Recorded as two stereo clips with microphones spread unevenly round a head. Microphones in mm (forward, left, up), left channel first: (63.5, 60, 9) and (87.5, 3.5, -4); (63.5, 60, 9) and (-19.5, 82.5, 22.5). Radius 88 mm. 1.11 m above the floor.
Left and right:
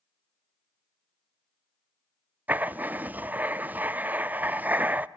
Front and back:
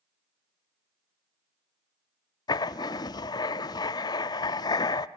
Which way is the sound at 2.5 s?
5° right.